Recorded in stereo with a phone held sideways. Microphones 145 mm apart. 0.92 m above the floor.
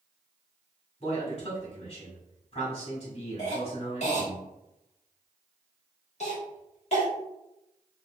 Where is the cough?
50° left (ahead or behind), 1.7 m.